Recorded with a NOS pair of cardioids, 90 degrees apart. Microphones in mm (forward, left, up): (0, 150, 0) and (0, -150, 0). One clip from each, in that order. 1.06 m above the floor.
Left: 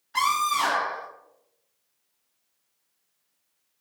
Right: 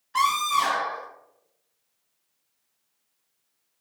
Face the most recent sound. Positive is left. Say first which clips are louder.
# right 1 dB
turn(degrees=-5)